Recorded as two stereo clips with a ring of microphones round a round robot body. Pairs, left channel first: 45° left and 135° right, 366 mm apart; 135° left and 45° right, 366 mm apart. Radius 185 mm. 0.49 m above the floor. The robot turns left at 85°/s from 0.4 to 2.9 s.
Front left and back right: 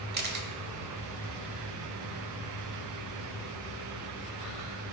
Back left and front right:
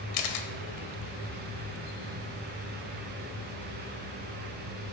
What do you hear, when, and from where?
0.1 s a camera shutter: 160° left, 1.2 m; by 0.5 s 155° left, 1.2 m